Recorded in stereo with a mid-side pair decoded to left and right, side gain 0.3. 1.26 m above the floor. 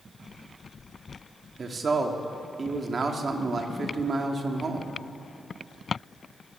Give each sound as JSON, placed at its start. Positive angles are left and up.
{"t": 1.6, "sound": "a man speaking", "azimuth_deg": -50, "distance_m": 2.5}